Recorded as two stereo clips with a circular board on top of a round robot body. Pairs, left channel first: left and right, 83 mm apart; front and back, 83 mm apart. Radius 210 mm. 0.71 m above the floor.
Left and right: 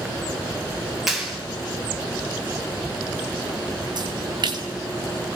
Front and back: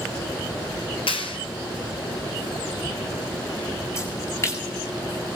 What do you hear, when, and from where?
1.1 s a clap: 5° right, 5.5 m
4.0 s a splash: 55° right, 8 m